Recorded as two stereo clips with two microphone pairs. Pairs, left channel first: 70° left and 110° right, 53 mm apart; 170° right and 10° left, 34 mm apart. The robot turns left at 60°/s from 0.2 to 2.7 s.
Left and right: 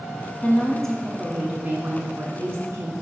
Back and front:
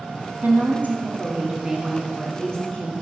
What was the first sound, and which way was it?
A woman speaking, 15° left.